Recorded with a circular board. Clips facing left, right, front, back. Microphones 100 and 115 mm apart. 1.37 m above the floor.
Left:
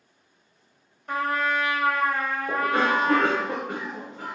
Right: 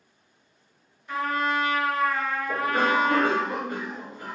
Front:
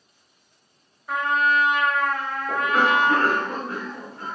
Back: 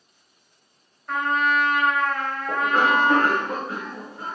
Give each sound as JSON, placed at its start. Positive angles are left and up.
{"t": 1.1, "sound": "a trumpet", "azimuth_deg": 85, "distance_m": 1.1}
{"t": 2.5, "sound": "a cough", "azimuth_deg": 110, "distance_m": 0.9}